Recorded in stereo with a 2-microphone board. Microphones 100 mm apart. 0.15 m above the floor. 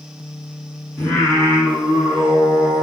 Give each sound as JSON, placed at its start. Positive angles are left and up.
{"t": 1.0, "sound": "singing", "side_deg": 15, "distance_m": 1.8}